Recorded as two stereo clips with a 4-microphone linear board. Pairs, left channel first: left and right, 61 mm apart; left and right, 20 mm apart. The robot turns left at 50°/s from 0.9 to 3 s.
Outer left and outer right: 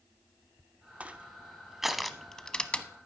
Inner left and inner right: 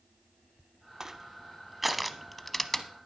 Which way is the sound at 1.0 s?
25° right (ahead or behind).